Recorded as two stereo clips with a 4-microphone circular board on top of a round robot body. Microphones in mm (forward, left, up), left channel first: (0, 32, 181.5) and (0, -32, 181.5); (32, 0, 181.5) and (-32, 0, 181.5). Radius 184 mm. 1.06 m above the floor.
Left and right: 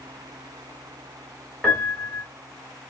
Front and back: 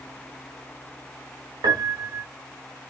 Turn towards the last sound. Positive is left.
turn(degrees=170)